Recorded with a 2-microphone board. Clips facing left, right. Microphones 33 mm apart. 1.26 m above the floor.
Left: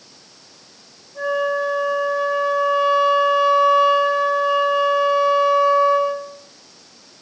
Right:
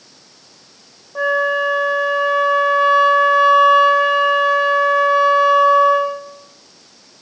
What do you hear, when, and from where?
1.1 s a flute: 80° right, 1.5 m